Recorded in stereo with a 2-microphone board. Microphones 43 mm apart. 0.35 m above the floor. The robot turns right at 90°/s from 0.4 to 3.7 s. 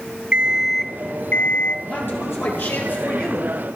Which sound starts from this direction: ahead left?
A man speaking, at 1.9 s.